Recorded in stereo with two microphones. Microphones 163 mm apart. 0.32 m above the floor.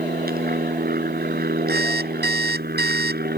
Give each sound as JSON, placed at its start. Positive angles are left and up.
{"t": 0.0, "sound": "an aircraft", "side_deg": -60}
{"t": 1.7, "sound": "an alarm clock", "side_deg": -80}